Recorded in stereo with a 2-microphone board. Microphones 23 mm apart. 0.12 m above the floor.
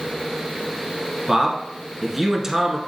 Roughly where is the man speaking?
Centre.